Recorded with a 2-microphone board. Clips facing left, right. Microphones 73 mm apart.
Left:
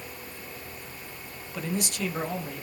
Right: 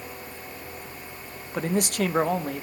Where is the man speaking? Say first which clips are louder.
Right 6 dB; 40° right (ahead or behind), 1.0 m; by 2.6 s 70° right (ahead or behind), 1.7 m.